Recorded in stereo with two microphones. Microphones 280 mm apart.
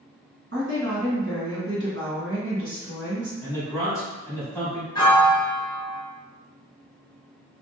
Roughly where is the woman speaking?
Right.